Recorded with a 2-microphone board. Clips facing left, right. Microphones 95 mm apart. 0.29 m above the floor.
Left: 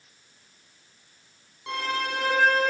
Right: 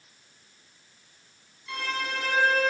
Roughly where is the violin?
Left.